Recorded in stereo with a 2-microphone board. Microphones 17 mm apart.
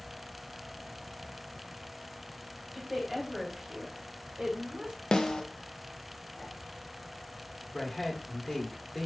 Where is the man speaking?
15° left (ahead or behind), 1.3 m.